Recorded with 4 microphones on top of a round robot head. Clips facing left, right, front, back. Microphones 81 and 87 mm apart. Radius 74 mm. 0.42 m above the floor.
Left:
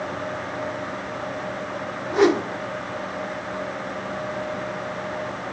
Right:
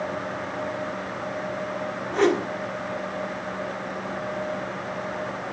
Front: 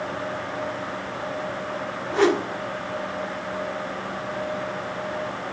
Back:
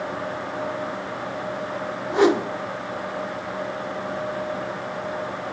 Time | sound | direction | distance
2.1 | a whoosh | 145° left | 1.0 m